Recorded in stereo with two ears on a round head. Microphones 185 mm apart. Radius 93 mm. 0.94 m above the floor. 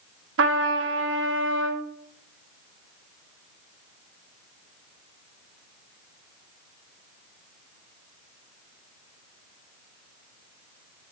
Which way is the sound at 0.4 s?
65° right (ahead or behind).